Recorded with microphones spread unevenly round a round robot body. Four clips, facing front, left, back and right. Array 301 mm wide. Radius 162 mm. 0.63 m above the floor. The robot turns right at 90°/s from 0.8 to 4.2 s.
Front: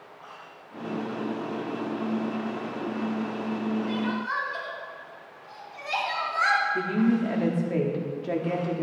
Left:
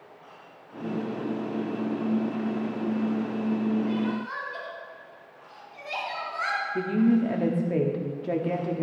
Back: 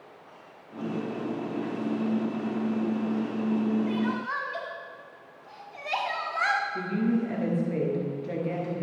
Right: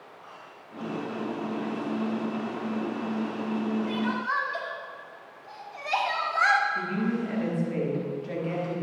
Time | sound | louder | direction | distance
3.9 | crying | even, even | 120° right | 2 m
6.8 | a woman speaking | left 6 dB, front 3 dB | 70° left | 1.5 m